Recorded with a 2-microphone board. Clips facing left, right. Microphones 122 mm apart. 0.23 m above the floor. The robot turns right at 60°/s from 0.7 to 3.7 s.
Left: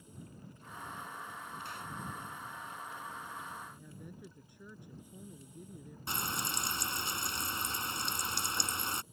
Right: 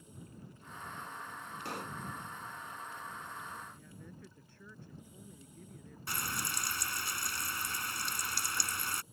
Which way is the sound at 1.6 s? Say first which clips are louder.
Right 5 dB; 70° right (ahead or behind).